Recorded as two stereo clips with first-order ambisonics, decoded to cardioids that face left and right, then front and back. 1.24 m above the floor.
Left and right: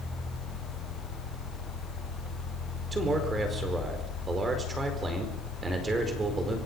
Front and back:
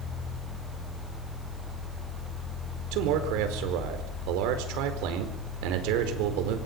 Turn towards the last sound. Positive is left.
turn(degrees=-165)